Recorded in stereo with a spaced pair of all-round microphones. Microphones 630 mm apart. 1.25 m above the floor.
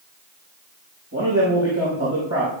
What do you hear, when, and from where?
1.1 s a man speaking: 30° right (ahead or behind), 5.5 m